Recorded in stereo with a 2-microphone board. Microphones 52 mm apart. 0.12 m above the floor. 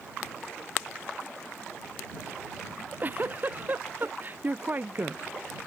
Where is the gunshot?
No gunshot in this recording.